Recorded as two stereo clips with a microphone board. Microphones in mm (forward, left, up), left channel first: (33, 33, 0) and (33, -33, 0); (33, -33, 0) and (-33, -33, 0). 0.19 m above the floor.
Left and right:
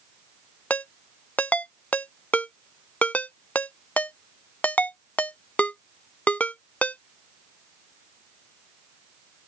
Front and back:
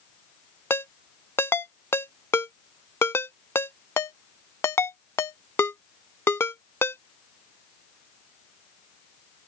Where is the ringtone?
35° left.